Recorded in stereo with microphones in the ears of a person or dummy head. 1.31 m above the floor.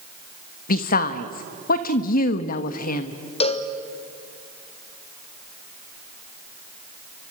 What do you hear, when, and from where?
0.7 s a woman speaking: 45° left (ahead or behind), 1.3 m
3.4 s a cowbell: 30° left (ahead or behind), 1.1 m